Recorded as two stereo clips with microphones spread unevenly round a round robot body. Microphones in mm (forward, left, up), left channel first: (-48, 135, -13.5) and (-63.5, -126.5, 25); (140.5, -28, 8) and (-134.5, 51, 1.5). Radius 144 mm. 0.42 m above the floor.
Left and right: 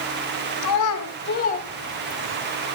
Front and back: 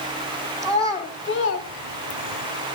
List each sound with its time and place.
0.6 s a child speaking: 65° left, 1.6 m; by 2.4 s 15° right, 1.5 m